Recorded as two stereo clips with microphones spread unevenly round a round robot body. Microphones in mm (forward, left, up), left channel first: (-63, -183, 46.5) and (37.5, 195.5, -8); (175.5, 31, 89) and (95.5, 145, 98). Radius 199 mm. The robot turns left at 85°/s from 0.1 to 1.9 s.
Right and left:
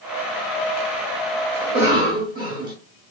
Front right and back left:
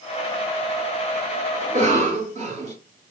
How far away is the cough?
About 1.3 m.